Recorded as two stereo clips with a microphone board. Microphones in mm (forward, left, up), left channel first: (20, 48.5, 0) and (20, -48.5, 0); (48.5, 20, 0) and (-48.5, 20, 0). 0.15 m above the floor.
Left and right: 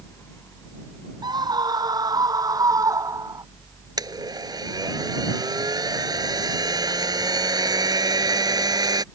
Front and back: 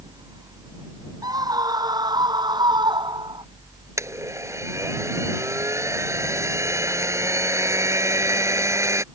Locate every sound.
1.2 s a scream: 130° right; by 3.5 s 145° right
4.0 s a blender: 125° right